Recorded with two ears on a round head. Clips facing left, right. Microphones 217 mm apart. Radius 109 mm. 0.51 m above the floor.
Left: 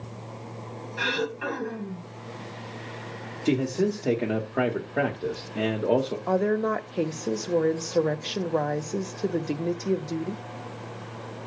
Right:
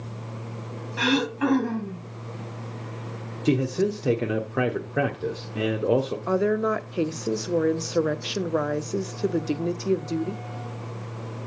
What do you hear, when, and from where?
1.0 s throat clearing: 65° right (ahead or behind), 2.5 m
3.5 s a man speaking: 10° right (ahead or behind), 0.9 m
6.3 s a woman speaking: 10° right (ahead or behind), 0.7 m